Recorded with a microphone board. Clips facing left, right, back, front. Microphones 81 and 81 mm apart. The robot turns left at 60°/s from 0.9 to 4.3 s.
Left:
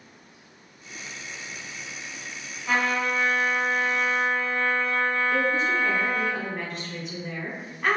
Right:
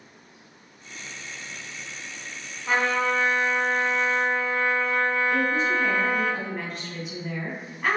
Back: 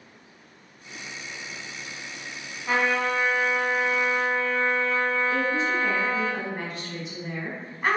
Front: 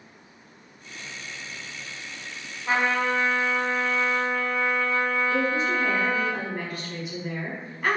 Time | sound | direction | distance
2.7 | a trumpet | 45° right | 0.9 m
5.3 | a woman speaking | 170° right | 1.2 m